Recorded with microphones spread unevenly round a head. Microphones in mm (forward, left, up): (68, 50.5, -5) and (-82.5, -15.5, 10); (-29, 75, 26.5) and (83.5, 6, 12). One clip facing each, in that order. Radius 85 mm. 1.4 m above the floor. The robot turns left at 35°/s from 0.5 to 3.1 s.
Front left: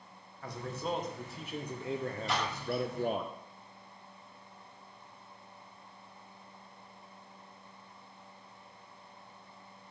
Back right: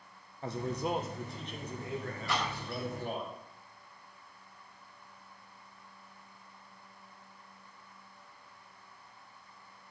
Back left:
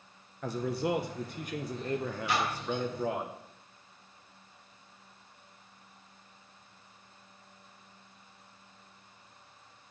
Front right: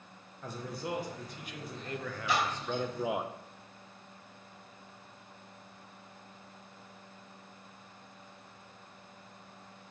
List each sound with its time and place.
0.4 s a man speaking: 135° left, 0.6 m; by 3.3 s 45° left, 0.6 m
2.3 s a splash: 50° right, 3 m; by 2.8 s 70° right, 3 m